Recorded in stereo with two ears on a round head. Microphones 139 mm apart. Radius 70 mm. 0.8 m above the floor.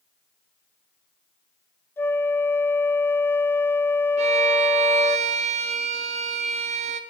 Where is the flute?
15° left (ahead or behind), 0.6 m.